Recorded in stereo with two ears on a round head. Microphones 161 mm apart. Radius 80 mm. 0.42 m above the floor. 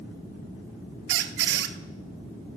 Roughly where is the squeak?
Right.